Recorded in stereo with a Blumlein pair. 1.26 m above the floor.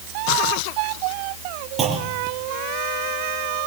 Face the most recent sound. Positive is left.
turn(degrees=-20)